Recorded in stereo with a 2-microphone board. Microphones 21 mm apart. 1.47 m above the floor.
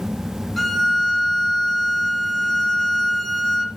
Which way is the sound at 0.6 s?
10° left (ahead or behind).